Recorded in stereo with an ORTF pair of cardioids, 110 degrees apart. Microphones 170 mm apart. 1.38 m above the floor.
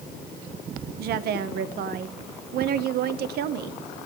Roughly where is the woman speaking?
Right.